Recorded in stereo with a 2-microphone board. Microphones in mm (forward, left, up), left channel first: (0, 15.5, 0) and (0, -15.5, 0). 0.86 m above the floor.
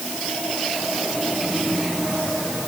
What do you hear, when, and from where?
Only background noise.